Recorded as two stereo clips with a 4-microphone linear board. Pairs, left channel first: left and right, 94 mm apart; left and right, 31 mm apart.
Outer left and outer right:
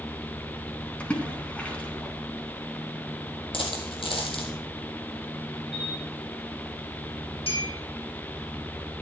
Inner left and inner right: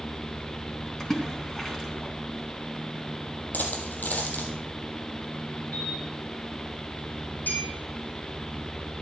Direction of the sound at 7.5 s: 80° left.